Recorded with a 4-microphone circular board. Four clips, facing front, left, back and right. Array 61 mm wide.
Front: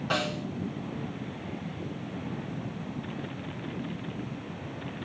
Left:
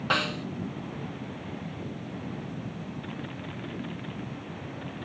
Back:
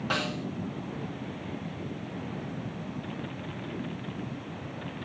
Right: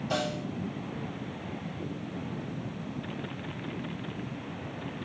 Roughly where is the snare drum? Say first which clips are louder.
Left 4 dB, front 2 dB; left.